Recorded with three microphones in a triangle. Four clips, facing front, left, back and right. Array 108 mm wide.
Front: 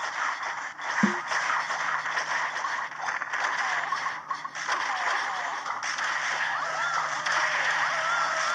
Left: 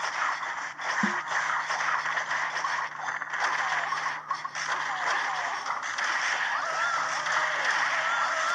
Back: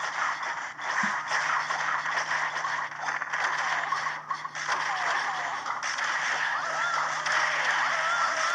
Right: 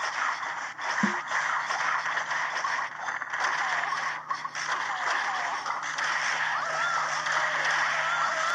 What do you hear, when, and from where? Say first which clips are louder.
1.0 s a snare drum: right 1 dB, front 7 dB; 5° right